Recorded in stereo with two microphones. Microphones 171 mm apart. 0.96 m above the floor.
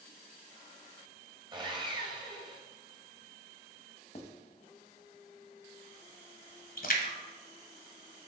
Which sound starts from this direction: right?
Sawing, at 1.5 s.